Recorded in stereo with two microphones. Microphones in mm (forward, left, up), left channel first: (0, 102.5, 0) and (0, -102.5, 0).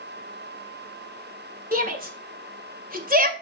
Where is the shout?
45° right (ahead or behind), 1.9 m.